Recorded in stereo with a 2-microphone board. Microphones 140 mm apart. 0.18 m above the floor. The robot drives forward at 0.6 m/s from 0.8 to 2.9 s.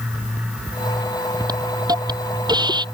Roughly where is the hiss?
Right.